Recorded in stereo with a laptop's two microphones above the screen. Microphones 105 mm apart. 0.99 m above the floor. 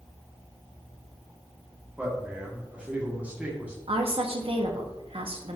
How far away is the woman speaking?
About 1.3 m.